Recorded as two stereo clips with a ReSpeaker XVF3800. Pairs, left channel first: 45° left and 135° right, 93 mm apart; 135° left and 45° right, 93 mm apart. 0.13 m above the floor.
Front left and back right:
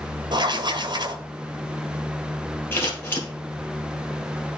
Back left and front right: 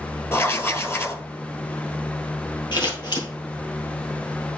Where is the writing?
165° right, 0.8 m.